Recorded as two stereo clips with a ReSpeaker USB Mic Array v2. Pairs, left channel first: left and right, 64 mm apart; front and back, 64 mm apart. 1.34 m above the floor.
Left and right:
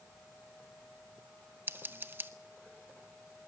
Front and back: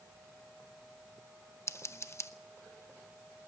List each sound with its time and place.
1.7 s scissors: 40° right, 0.9 m